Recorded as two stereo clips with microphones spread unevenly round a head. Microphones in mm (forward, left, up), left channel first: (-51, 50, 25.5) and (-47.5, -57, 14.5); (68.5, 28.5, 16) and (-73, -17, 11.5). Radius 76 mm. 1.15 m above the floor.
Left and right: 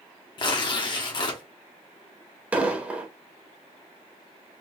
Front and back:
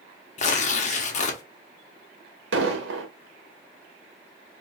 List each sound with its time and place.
0.4 s tearing paper: 45° left, 0.9 m
2.5 s an explosion: 165° right, 1.3 m